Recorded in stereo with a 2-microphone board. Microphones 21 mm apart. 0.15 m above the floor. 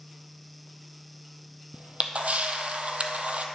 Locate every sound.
1.7 s a camera shutter: 80° right, 0.7 m